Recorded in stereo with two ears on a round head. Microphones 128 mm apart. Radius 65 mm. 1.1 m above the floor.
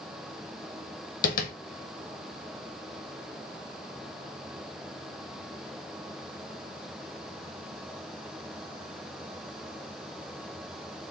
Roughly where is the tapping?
Left.